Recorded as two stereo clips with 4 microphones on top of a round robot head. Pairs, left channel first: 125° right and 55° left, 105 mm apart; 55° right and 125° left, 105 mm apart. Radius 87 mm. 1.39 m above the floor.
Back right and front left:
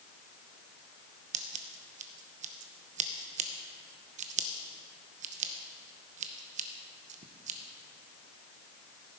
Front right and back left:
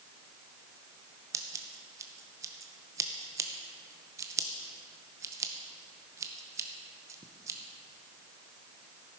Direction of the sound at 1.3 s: 60° left.